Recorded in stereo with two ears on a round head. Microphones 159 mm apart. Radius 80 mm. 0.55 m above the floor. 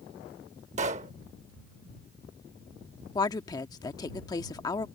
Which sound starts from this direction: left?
A woman speaking, at 3.1 s.